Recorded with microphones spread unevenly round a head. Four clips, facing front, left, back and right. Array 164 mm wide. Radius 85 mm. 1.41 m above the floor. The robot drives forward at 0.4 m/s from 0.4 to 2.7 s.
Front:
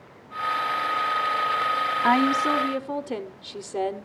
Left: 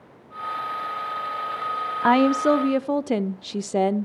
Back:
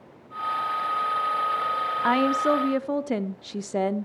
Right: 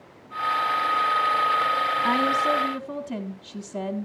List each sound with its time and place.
2.0 s a woman speaking: 65° left, 0.6 m; by 4.0 s 90° left, 0.5 m